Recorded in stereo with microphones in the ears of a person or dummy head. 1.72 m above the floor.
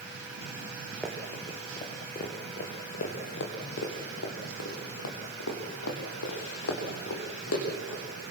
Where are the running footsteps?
5° left (ahead or behind), 2 m; by 8.0 s 75° left (ahead or behind), 6 m.